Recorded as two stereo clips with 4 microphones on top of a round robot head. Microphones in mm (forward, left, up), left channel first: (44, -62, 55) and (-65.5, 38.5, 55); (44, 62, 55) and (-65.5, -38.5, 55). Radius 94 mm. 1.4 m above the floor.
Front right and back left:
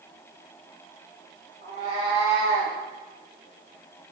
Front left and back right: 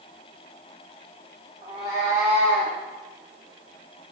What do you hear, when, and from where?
1.6 s a cat meowing: 80° right, 3.5 m; by 2.8 s 85° right, 4.5 m